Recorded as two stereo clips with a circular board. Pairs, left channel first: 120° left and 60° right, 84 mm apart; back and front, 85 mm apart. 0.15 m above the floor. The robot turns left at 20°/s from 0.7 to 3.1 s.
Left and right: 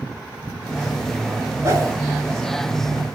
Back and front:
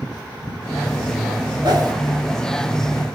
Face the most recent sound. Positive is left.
turn(degrees=-40)